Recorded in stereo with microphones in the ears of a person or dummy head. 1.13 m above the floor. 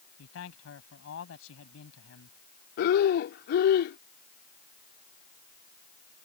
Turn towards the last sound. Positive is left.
turn(degrees=50)  # may be behind; listen again after turning